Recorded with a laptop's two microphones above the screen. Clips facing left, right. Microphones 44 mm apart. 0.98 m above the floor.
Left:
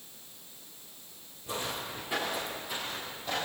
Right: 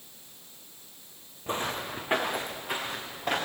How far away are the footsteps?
About 3.5 m.